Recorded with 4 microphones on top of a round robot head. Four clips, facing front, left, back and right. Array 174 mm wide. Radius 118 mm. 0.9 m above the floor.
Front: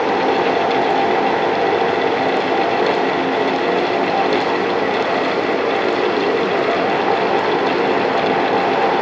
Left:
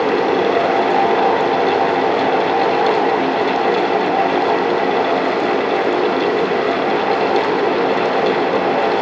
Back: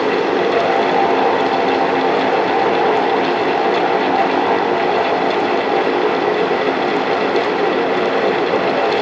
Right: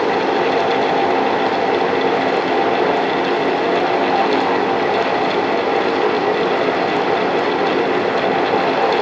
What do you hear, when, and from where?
Only background noise.